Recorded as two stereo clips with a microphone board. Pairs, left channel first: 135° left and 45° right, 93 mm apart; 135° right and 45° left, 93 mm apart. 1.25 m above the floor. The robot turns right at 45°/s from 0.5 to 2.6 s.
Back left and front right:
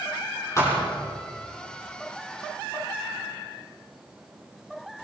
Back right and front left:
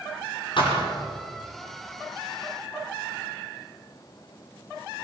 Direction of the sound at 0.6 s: 165° right.